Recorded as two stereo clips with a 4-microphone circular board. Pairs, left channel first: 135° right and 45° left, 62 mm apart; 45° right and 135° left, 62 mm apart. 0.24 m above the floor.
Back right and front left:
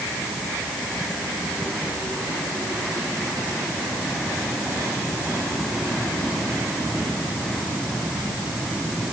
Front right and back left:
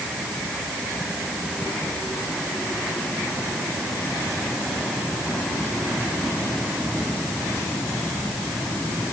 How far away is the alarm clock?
I don't hear an alarm clock.